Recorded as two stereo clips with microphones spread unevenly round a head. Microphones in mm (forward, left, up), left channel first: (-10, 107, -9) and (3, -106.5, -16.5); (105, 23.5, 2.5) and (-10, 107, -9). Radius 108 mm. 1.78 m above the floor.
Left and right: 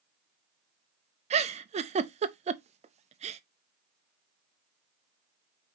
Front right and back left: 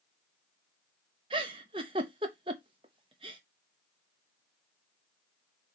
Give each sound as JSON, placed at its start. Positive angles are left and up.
{"t": 1.3, "sound": "a giggle", "azimuth_deg": -150, "distance_m": 0.6}